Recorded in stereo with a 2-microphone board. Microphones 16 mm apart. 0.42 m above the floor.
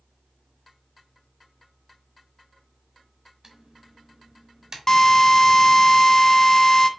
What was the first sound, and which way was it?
Typing on a keyboard, 45° right (ahead or behind).